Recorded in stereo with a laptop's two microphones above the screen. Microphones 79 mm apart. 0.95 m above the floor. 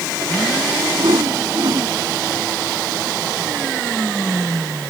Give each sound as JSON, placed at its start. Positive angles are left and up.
{"t": 1.0, "sound": "a whoosh", "side_deg": -60}